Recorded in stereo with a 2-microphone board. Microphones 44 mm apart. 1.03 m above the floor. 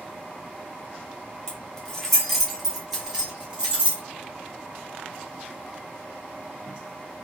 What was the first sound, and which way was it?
Keys jangling, 20° left (ahead or behind).